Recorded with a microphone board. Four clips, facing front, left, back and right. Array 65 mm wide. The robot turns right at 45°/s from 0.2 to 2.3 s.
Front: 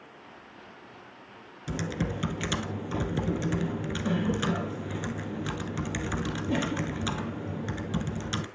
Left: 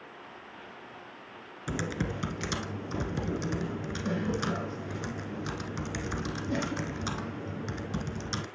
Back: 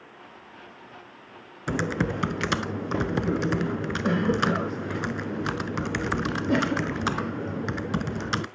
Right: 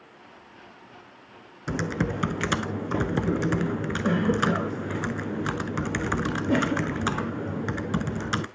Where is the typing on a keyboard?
160° right, 0.8 m; by 8.5 s 135° right, 0.8 m.